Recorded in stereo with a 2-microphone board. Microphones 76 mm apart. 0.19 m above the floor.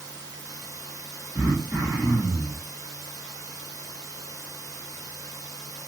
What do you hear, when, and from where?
0.0 s running water: 45° right (ahead or behind), 1.1 m
1.4 s throat clearing: 25° right (ahead or behind), 2 m